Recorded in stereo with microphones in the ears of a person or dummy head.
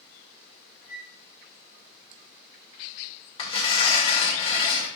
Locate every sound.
0.9 s a flute: 15° right (ahead or behind), 1.8 m
3.4 s tearing paper: 30° left (ahead or behind), 2.5 m